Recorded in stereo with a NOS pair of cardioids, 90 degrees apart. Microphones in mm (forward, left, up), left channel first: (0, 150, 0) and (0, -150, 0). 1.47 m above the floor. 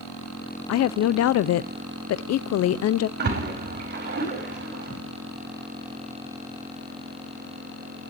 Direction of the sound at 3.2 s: 35° right.